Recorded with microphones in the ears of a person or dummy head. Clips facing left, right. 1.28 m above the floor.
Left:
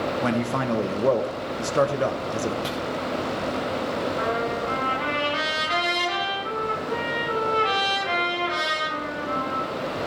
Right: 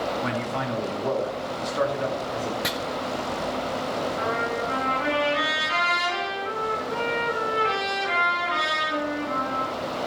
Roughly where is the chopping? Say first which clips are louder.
Even; right.